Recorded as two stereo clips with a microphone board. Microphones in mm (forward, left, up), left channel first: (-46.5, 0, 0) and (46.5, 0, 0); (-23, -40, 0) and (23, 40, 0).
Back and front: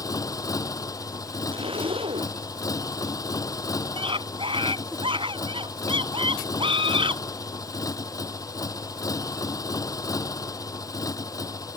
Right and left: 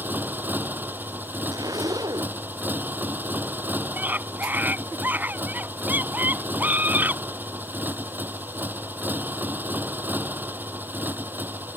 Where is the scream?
10° right.